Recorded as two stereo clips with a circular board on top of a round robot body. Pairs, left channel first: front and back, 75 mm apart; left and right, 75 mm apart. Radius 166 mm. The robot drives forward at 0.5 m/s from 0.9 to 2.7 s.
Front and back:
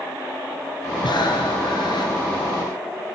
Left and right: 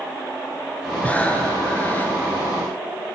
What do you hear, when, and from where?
1.0 s breathing: 20° left, 2.5 m; by 2.1 s 25° left, 2 m